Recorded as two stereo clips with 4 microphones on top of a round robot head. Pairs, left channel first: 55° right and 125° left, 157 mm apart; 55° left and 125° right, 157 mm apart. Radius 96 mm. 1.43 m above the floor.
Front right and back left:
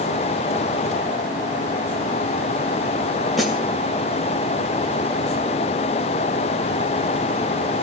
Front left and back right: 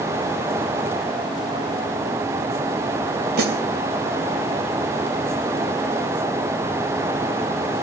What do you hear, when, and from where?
3.4 s a snare drum: 150° right, 2.5 m